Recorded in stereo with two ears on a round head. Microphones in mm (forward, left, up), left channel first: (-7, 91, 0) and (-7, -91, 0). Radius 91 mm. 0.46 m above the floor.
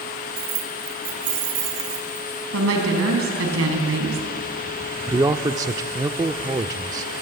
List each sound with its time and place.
0.4 s keys jangling: 50° right (ahead or behind), 0.9 m; by 2.3 s 40° right (ahead or behind), 3 m
2.5 s a woman speaking: 75° right (ahead or behind), 4 m
5.1 s a man speaking: 20° right (ahead or behind), 0.7 m